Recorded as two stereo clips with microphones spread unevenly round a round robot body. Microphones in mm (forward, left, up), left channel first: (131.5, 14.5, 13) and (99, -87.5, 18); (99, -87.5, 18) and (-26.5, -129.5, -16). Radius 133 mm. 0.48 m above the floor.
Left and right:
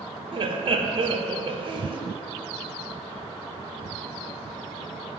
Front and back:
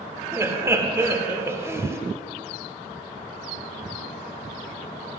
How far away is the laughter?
About 1.0 m.